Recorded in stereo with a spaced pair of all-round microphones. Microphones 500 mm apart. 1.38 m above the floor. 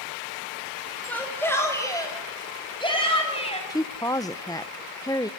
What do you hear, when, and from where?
1.1 s a shout: 5° left (ahead or behind), 8 m; by 3.6 s 10° left (ahead or behind), 10.5 m
3.7 s a woman speaking: 5° left (ahead or behind), 0.8 m